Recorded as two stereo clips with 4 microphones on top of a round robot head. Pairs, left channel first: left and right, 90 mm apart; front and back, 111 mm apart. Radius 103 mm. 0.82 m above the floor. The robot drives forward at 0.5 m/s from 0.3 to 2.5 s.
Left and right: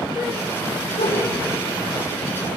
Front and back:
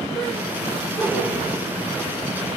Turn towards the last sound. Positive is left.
turn(degrees=90)